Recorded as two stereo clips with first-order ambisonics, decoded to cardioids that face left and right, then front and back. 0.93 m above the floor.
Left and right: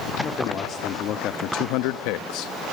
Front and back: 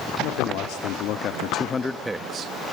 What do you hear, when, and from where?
0.2 s a man speaking: 25° left, 2.5 m; by 2.5 s 130° left, 1.0 m